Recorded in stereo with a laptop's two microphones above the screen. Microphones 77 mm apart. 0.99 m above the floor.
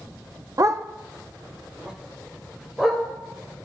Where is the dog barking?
45° right (ahead or behind), 0.5 m; by 3.0 s 5° right (ahead or behind), 2 m.